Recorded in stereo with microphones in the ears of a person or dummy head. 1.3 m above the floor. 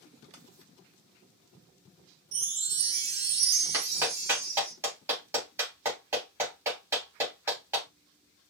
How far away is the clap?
About 3.5 m.